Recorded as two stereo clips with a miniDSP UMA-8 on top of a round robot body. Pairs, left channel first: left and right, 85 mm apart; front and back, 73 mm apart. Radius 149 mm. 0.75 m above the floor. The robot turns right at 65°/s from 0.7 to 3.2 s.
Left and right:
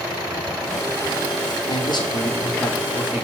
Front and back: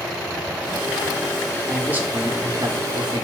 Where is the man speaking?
95° left, 1.7 m; by 3.2 s 165° right, 1.7 m.